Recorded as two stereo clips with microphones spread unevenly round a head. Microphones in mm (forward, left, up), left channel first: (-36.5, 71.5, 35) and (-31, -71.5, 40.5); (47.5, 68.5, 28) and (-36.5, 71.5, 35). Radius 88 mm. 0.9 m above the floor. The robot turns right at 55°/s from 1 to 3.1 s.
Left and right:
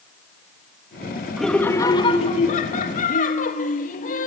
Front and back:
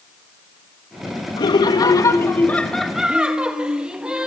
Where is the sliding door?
No sliding door in this recording.